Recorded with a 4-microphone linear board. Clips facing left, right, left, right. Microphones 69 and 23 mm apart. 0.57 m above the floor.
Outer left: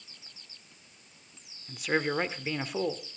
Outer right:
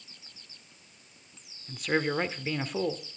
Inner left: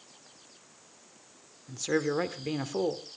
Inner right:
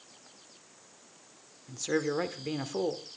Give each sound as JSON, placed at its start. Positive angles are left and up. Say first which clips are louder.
{"t": 1.7, "sound": "a man speaking", "louder": "outer right 1 dB, inner left 1 dB", "side_deg": 5, "distance_m": 1.8}